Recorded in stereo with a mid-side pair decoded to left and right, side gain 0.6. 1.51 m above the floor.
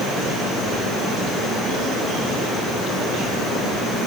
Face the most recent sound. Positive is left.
No sound to turn to.